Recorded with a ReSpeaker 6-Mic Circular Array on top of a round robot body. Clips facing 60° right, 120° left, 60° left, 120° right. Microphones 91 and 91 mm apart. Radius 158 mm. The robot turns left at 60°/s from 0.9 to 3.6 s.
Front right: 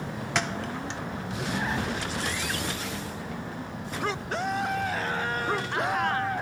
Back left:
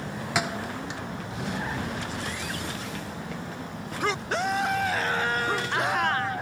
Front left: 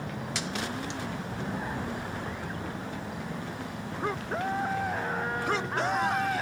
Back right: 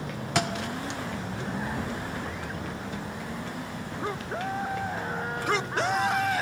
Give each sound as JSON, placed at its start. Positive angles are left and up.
{"t": 0.3, "sound": "a thud", "azimuth_deg": -155}